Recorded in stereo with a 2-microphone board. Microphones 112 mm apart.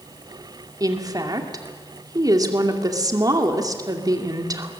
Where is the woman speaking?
35° right (ahead or behind), 2.5 m.